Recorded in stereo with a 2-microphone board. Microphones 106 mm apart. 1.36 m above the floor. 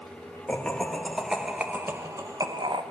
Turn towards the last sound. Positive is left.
turn(degrees=-50)  # may be behind; listen again after turning